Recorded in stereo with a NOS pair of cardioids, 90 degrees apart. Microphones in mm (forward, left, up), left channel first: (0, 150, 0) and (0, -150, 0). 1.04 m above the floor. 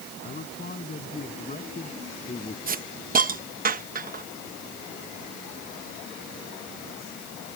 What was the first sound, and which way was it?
A man speaking, 35° left.